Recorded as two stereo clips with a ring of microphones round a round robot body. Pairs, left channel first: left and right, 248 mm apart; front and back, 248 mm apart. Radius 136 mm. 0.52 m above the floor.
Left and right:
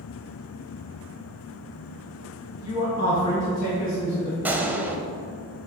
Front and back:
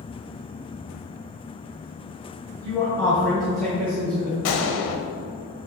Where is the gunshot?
5° right, 0.8 m.